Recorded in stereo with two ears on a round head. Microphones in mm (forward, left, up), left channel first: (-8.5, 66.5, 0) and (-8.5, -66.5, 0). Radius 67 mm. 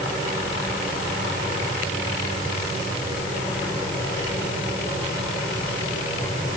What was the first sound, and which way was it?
Only background noise.